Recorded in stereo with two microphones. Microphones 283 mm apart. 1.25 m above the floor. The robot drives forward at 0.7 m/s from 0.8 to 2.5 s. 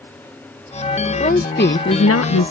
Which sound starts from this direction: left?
A woman speaking, at 1.2 s.